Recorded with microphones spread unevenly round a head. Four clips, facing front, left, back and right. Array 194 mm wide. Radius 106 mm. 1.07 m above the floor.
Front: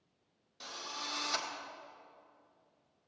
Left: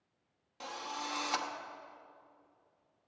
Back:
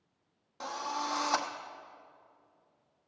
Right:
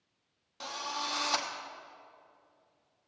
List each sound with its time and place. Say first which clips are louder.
0.6 s a drill: right 3 dB, back 10 dB; 170° right, 0.9 m